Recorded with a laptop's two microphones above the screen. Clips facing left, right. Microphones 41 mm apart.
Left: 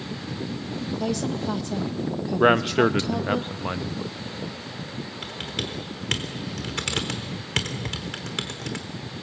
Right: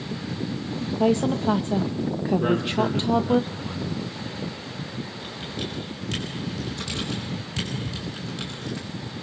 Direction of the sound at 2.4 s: 50° left (ahead or behind).